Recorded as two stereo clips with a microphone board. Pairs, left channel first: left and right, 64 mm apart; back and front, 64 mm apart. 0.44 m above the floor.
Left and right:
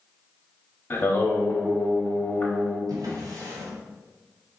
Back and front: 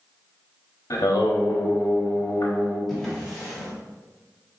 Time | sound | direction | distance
0.9 | singing | 145° left | 0.8 m
2.9 | a drawer | 90° right | 1.7 m